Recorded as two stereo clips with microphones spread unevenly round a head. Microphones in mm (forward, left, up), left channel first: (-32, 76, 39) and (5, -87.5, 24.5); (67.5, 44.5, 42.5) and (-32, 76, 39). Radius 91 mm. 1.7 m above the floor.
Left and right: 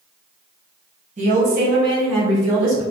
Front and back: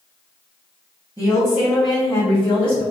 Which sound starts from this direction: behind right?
A woman speaking, at 1.2 s.